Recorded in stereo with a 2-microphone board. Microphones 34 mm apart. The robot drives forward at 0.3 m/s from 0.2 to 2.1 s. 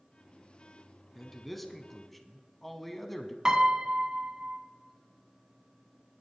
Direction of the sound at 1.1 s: 5° left (ahead or behind).